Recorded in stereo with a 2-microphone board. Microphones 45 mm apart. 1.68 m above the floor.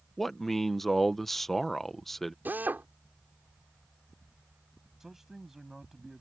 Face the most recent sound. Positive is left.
turn(degrees=-5)  # may be behind; listen again after turning